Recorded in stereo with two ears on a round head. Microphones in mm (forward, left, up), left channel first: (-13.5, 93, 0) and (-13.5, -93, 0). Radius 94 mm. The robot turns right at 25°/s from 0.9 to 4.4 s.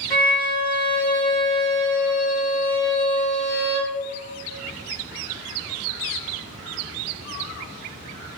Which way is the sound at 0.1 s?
160° left.